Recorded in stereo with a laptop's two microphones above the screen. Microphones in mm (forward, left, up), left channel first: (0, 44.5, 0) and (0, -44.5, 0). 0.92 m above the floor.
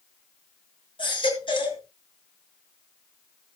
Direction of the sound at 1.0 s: 60° left (ahead or behind).